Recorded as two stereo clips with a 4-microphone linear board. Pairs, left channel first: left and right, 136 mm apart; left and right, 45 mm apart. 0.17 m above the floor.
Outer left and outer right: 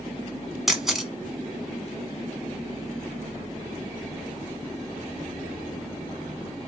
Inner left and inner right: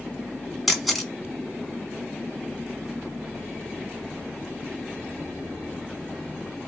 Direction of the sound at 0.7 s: Centre (ahead or behind).